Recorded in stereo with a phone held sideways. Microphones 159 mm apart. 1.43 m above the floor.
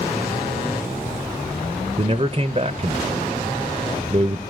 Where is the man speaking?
35° right (ahead or behind), 0.8 m.